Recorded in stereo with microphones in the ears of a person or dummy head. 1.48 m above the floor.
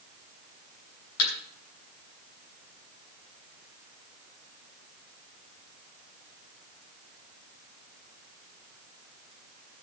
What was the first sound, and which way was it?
A thud, 80° left.